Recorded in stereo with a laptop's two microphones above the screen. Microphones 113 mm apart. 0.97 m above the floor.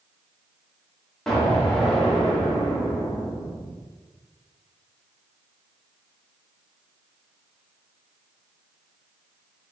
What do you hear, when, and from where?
1.3 s an explosion: 5° left (ahead or behind), 1.3 m